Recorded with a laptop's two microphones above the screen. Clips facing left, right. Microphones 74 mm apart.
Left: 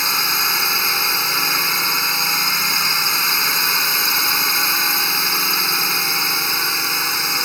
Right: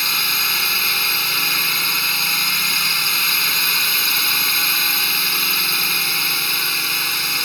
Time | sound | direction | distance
0.0 | a drone | 20° left (ahead or behind) | ?